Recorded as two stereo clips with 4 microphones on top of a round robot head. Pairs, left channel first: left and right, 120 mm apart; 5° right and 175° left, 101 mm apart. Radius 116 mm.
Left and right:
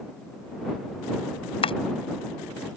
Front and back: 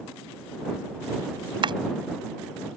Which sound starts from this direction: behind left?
Chopping, at 1.6 s.